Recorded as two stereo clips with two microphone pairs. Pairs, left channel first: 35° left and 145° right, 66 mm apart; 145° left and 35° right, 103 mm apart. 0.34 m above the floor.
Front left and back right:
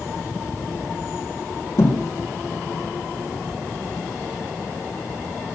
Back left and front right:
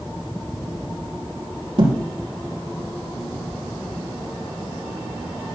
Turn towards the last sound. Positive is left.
turn(degrees=5)